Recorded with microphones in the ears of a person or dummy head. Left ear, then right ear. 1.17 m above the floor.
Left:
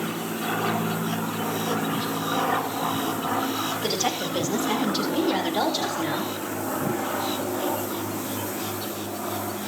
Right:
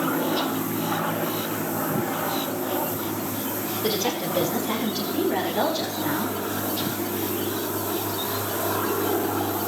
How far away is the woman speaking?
About 3.5 m.